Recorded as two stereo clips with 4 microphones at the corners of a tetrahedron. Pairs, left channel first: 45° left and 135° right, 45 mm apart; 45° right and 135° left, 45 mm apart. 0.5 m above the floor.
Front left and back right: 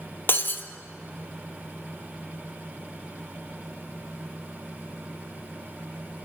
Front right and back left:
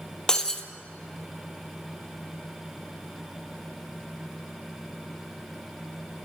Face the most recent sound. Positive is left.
turn(degrees=25)